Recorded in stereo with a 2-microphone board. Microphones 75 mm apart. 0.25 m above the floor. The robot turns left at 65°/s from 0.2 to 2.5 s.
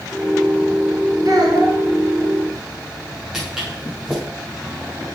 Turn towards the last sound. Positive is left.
turn(degrees=-5)  # may be behind; listen again after turning